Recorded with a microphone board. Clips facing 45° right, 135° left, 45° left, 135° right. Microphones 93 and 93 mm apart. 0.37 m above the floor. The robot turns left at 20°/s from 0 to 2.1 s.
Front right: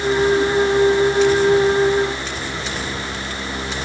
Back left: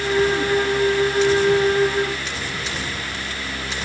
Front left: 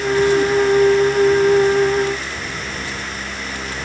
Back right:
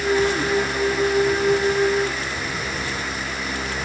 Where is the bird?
No bird in this recording.